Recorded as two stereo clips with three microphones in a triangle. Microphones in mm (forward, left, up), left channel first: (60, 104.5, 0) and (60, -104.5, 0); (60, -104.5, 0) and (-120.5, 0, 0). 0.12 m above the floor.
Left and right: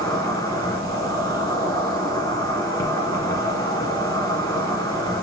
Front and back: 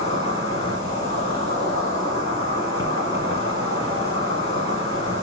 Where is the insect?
30° left, 2.5 m.